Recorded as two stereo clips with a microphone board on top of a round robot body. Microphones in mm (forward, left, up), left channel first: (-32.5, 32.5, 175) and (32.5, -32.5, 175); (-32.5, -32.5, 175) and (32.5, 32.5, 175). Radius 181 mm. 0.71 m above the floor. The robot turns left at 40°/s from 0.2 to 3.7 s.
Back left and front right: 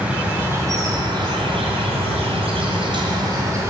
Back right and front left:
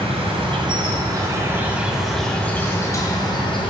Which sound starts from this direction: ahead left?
An insect, at 0.0 s.